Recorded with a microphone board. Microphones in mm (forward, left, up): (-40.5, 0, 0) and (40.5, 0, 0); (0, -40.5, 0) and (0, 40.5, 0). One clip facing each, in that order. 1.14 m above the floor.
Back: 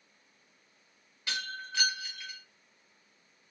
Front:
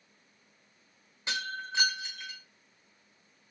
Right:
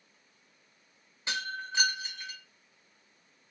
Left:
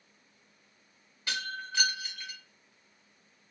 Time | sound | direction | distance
1.3 | breaking glass | 45° right | 1.0 m